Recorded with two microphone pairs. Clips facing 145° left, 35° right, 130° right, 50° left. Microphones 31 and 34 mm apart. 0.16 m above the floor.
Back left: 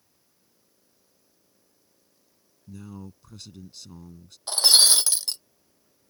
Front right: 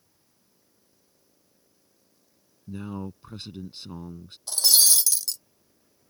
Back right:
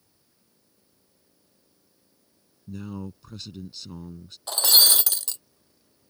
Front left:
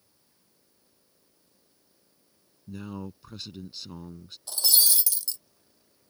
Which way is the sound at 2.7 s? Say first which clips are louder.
Front right 7 dB, back right 2 dB; 30° right.